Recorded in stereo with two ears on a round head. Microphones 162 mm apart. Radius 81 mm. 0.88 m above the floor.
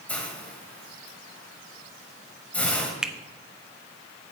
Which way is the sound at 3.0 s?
5° right (ahead or behind).